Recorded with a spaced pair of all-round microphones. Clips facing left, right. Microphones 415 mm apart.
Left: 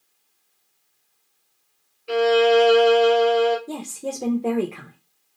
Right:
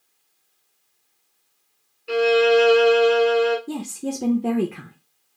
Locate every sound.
2.1 s a violin: 5° right (ahead or behind), 0.7 m
3.7 s a woman speaking: 30° right (ahead or behind), 0.7 m